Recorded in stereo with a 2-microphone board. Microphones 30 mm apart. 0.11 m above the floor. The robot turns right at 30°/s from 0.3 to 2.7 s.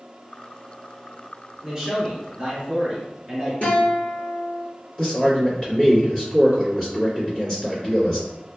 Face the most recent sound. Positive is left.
turn(degrees=20)  # may be behind; listen again after turning